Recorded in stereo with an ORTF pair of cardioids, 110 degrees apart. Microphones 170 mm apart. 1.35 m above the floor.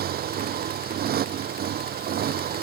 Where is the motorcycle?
55° right.